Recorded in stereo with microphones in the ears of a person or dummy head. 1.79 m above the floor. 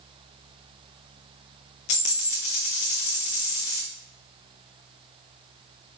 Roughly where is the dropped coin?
Left.